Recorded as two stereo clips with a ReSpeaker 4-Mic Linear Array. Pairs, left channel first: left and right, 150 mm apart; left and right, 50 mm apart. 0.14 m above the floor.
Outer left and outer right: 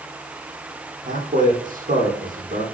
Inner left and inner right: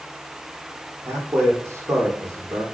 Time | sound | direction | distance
1.1 | a man speaking | 65° right (ahead or behind) | 5.5 m